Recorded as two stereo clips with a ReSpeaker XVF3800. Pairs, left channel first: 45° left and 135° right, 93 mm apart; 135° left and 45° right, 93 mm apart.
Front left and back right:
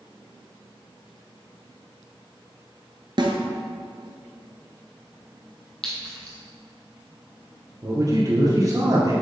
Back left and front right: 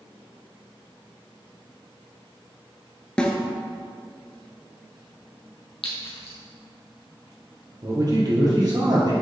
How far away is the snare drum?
About 1.0 m.